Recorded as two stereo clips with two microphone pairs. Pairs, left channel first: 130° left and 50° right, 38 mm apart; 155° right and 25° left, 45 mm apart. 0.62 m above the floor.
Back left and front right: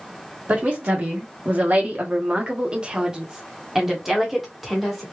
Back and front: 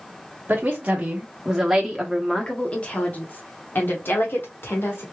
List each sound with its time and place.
0.5 s a woman speaking: 15° right, 1.2 m; by 5.0 s 140° right, 1.8 m